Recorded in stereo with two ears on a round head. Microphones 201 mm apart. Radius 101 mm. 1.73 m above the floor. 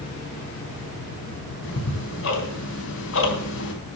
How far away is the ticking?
About 3.5 m.